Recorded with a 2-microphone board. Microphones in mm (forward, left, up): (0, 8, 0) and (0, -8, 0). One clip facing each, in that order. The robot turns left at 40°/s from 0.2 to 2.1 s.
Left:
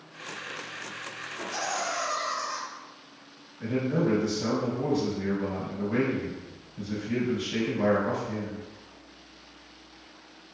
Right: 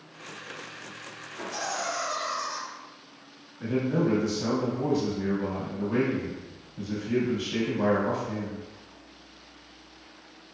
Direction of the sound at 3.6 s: 10° right (ahead or behind).